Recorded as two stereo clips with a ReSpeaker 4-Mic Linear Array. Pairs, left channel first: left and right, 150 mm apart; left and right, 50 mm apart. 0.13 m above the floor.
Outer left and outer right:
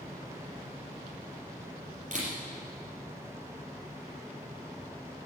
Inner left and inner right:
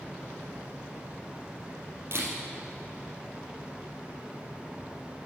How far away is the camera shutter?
About 3.5 m.